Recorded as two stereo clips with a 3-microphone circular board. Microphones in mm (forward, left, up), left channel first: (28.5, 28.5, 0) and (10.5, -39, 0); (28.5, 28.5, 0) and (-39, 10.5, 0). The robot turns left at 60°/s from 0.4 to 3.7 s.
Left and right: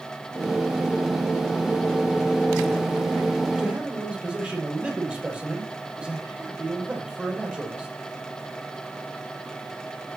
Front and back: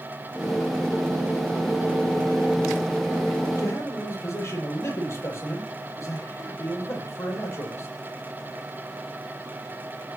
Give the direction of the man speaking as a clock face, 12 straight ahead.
1 o'clock.